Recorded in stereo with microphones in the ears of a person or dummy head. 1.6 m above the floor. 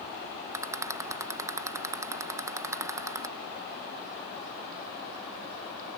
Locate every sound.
0.5 s a rattle: 15° right (ahead or behind)